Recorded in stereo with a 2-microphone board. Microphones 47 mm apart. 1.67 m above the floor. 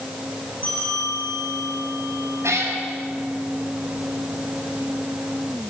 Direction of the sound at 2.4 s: 85° right.